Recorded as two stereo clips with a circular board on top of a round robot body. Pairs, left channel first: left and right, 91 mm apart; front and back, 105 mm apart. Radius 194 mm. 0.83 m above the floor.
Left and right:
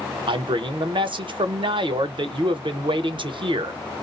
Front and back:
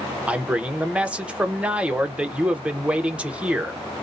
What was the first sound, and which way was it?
A man speaking, 100° right.